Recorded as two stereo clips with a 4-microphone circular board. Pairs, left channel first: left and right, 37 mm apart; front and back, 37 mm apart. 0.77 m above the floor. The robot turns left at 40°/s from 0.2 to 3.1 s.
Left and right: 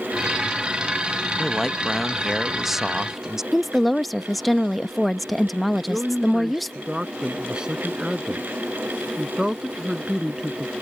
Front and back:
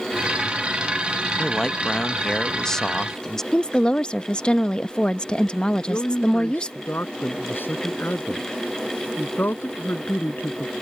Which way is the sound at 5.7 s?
20° right.